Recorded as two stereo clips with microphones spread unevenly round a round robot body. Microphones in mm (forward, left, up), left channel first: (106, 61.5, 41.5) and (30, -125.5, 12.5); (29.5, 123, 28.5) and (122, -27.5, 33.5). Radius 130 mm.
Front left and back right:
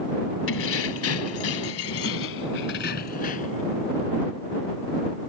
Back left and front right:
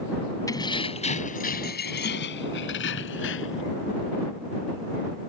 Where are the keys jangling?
50° left; by 3.6 s 130° left.